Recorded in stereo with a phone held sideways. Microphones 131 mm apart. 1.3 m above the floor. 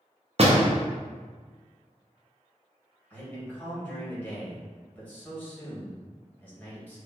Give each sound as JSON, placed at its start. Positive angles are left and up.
{"t": 0.4, "sound": "a door slam", "side_deg": -50, "distance_m": 0.6}
{"t": 3.1, "sound": "a man speaking", "side_deg": 15, "distance_m": 1.7}